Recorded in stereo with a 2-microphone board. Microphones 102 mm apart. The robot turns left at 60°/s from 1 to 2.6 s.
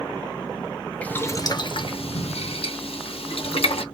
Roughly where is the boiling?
Centre.